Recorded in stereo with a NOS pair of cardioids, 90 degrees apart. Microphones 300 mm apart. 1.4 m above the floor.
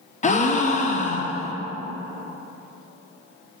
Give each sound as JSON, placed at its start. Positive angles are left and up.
{"t": 0.2, "sound": "a gasp", "azimuth_deg": 25, "distance_m": 0.9}